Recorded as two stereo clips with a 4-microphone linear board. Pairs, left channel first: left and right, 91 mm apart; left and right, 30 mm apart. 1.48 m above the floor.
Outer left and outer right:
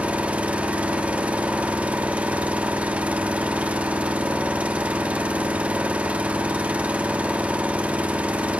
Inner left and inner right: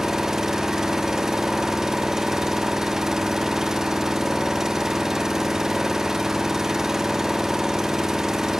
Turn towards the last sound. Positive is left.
turn(degrees=-15)  # may be behind; listen again after turning